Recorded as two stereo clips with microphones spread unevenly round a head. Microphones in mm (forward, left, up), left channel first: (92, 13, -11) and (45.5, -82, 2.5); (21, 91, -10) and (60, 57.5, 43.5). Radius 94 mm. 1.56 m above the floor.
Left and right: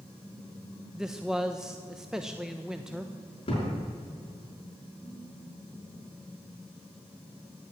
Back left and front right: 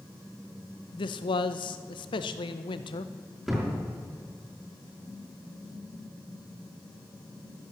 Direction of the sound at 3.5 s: 30° left.